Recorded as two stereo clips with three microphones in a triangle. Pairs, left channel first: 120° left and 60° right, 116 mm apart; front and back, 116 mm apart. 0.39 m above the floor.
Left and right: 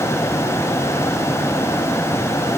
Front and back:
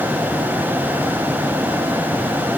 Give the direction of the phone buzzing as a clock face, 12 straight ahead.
I don't hear a phone buzzing.